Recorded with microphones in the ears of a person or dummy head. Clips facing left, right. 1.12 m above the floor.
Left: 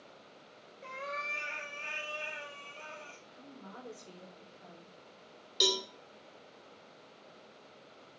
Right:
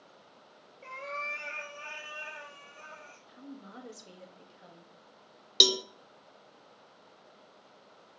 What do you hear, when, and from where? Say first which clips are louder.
0.8 s a cat meowing: right 1 dB; 10° left (ahead or behind), 1.9 m; by 3.2 s 40° left (ahead or behind), 3 m
3.3 s a woman speaking: right 8 dB; 35° right (ahead or behind), 1.9 m
5.6 s a cowbell: right 3 dB; 60° right (ahead or behind), 0.8 m